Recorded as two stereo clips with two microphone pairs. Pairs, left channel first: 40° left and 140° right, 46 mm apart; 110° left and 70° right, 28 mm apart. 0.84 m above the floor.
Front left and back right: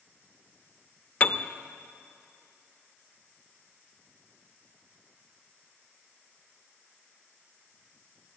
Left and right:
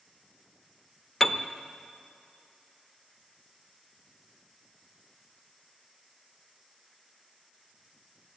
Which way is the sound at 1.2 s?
40° left.